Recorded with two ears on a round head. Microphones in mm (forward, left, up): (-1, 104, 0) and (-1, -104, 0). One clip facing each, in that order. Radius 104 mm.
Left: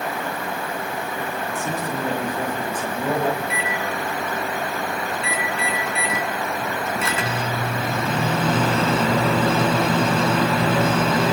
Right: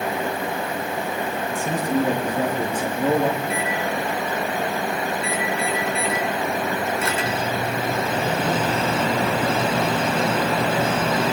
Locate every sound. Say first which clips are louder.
1.5 s a man speaking: right 3 dB; 10° right (ahead or behind), 5.5 m
3.4 s a microwave: right 2 dB; 65° left (ahead or behind), 4 m